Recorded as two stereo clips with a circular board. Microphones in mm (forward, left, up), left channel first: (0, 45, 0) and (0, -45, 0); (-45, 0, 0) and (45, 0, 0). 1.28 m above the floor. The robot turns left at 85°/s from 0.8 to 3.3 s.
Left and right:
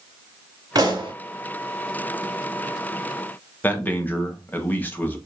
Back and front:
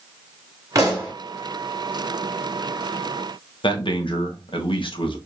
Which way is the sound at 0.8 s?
45° right.